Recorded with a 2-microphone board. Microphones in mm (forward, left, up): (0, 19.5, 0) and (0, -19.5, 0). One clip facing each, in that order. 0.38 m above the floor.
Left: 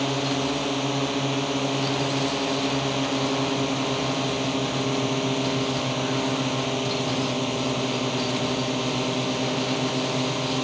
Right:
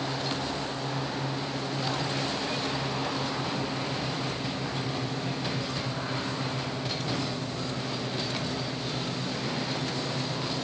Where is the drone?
85° left.